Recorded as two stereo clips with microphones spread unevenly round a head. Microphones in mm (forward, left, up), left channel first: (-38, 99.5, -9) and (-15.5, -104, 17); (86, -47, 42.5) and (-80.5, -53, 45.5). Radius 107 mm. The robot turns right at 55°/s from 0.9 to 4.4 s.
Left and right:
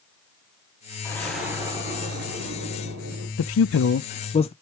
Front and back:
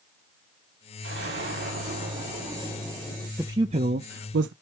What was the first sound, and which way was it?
An explosion, 175° left.